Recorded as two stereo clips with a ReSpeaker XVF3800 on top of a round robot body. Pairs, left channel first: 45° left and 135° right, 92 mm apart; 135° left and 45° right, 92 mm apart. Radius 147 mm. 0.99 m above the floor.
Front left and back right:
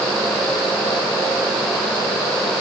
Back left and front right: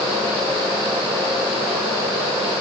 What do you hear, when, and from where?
Only background noise.